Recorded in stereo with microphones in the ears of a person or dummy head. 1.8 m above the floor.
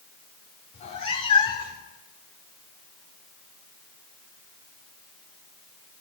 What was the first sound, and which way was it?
A cat meowing, 40° left (ahead or behind).